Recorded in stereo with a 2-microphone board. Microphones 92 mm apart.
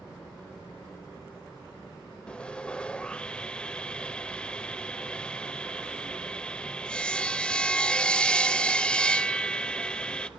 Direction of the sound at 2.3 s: 10° left (ahead or behind).